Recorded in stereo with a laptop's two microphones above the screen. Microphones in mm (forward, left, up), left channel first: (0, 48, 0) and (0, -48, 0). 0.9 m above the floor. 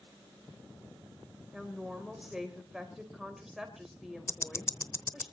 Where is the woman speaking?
5° right (ahead or behind), 3.5 m.